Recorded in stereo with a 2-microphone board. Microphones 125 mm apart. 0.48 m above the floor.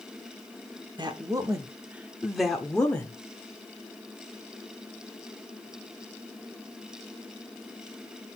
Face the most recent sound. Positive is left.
turn(degrees=10)  # may be behind; listen again after turning